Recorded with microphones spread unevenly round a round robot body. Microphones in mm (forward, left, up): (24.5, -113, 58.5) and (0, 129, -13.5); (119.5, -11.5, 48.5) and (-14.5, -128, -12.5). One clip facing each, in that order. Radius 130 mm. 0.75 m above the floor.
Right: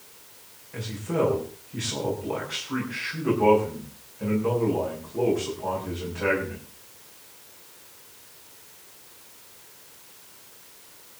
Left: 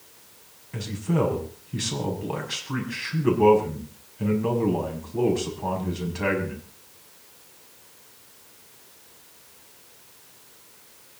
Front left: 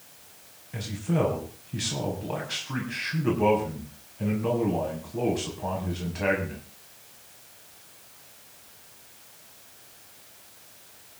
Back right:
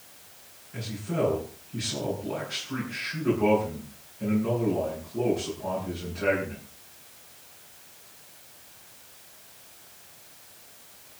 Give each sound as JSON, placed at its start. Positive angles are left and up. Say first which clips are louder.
{"t": 0.7, "sound": "a man speaking", "louder": "left 1 dB, front left 2 dB", "azimuth_deg": 75, "distance_m": 6.0}